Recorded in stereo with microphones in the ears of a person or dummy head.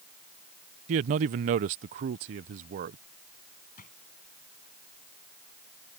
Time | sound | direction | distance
0.9 | a man speaking | 40° right (ahead or behind) | ?
3.8 | a drawer | 45° left (ahead or behind) | ?